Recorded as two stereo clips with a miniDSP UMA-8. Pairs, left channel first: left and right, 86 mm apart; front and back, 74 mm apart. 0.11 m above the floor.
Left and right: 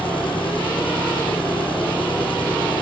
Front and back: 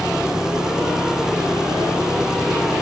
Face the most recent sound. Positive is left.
turn(degrees=100)